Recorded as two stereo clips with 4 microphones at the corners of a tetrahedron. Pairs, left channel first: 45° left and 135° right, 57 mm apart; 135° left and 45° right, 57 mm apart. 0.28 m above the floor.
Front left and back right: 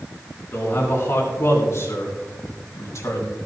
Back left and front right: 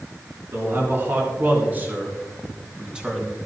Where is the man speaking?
5° right, 4.5 m; by 3.4 s 35° left, 3 m.